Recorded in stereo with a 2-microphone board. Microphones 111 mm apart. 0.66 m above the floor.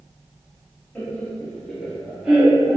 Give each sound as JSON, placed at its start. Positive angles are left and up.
{"t": 0.9, "sound": "laughter", "side_deg": 15, "distance_m": 0.9}